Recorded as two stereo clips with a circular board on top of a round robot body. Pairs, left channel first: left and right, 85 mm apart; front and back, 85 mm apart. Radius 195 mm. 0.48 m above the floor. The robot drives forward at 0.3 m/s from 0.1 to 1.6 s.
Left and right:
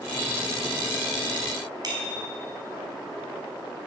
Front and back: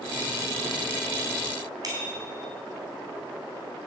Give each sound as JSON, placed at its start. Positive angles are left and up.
{"t": 1.8, "sound": "a bicycle bell", "azimuth_deg": -135, "distance_m": 4.5}